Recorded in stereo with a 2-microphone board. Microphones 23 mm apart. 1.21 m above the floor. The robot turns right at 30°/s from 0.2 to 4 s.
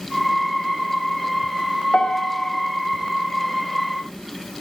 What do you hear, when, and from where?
1.9 s a piano: 75° left (ahead or behind), 2.5 m; by 2.5 s 80° left, 2.5 m